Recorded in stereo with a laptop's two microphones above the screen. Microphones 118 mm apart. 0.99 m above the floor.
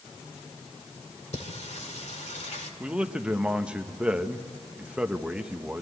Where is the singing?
70° left (ahead or behind), 1.9 m.